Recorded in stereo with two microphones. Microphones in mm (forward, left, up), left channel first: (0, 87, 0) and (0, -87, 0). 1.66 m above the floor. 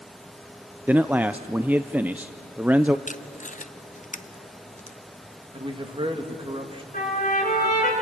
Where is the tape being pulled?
45° left (ahead or behind), 0.8 m.